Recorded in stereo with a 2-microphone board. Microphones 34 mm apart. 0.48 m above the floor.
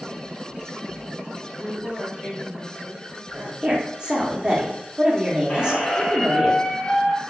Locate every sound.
1.6 s a woman speaking: centre (ahead or behind), 1.5 m; by 3.5 s 45° right (ahead or behind), 2 m
3.6 s a woman speaking: 25° right (ahead or behind), 0.8 m
5.5 s a squeak: 30° left (ahead or behind), 0.8 m